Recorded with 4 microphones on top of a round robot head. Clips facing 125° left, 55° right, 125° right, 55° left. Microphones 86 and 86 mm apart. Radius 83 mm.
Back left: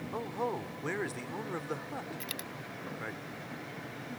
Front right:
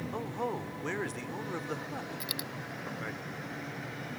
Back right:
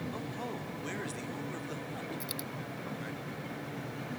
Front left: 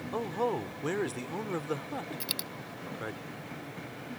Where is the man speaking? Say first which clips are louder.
Back left 1 dB, front left 8 dB; 40° left.